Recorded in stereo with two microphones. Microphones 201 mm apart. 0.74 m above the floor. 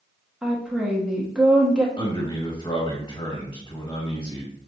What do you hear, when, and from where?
0.4 s a woman speaking: 5° right (ahead or behind), 1.0 m
2.0 s a man speaking: 25° left (ahead or behind), 1.4 m